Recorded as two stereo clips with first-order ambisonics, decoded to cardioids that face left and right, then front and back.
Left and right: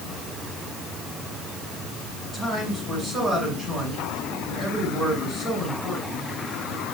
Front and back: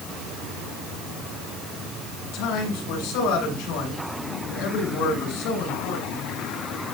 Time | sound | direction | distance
2.2 | a man speaking | 15° right | 8.5 m